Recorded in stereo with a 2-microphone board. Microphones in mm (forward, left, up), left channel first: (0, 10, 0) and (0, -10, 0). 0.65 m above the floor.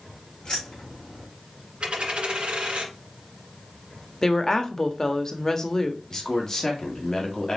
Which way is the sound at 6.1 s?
30° left (ahead or behind).